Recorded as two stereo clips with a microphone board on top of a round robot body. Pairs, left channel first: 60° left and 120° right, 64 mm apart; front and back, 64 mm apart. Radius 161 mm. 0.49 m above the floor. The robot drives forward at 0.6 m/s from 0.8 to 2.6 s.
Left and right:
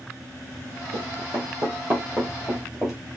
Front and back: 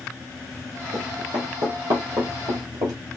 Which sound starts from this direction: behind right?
Running footsteps, at 0.9 s.